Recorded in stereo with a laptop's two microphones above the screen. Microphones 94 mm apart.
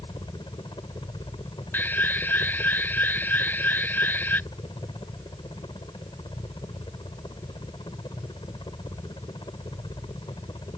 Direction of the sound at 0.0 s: 55° left (ahead or behind).